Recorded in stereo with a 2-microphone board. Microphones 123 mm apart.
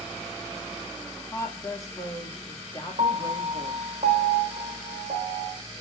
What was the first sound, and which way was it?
A woman speaking, 30° left (ahead or behind).